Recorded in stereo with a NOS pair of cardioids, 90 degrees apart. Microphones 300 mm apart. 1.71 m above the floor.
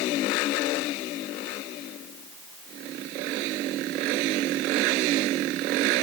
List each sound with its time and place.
Only background noise.